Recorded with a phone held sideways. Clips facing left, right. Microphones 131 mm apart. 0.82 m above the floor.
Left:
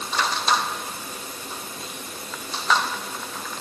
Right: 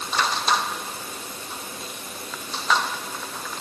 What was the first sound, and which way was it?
Only background noise.